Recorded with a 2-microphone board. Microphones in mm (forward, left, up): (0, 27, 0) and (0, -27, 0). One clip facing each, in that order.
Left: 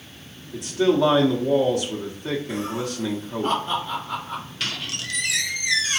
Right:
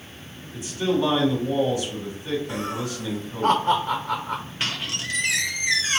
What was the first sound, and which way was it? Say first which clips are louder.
A man speaking: left 4 dB; 60° left (ahead or behind).